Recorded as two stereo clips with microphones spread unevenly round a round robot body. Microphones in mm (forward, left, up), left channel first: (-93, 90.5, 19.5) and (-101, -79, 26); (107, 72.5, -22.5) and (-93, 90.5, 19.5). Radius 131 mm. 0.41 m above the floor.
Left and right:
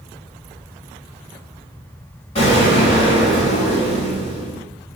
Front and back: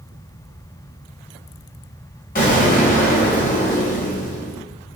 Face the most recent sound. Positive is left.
turn(degrees=30)